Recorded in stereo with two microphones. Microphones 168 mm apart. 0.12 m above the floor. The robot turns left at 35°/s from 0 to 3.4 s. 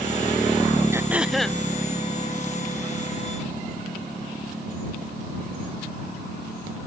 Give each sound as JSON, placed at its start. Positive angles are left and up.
{"t": 0.9, "sound": "throat clearing", "side_deg": -15}